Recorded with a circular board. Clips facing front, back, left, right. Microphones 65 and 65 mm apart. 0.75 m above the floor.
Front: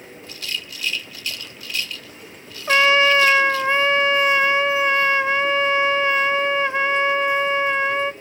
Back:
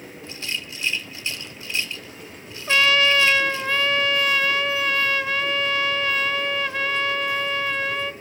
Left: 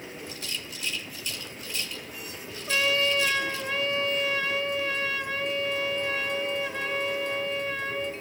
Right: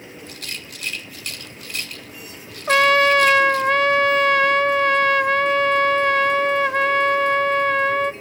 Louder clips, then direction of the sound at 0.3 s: Even, right 2 dB; 115° right.